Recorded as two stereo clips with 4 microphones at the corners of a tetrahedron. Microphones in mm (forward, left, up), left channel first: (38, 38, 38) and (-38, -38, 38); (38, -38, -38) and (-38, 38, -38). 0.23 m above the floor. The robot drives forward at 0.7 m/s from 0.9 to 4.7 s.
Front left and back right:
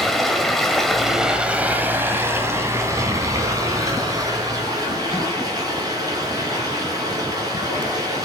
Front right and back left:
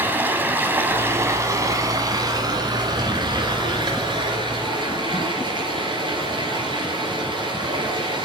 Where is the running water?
130° left, 1.1 m; by 8.2 s 175° left, 3 m.